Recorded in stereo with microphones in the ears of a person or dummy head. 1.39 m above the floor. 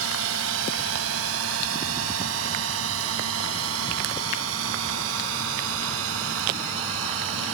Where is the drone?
80° right.